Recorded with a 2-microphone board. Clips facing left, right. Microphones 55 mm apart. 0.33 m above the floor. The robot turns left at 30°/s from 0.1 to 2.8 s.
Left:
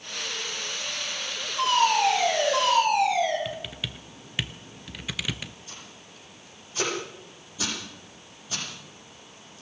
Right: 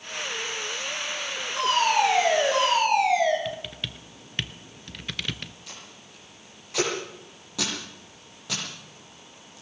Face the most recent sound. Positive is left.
turn(degrees=-80)